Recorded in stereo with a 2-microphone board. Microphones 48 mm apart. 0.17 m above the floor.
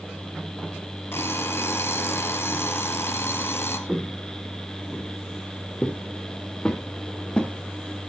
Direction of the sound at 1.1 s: 55° left (ahead or behind).